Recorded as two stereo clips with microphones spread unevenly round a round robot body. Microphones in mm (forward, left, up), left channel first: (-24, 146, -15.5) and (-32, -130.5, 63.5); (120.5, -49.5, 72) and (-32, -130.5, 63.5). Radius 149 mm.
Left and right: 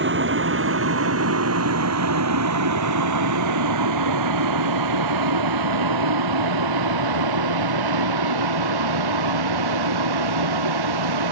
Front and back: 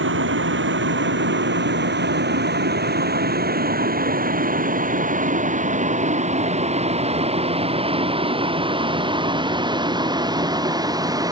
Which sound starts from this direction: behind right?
A vehicle, at 0.0 s.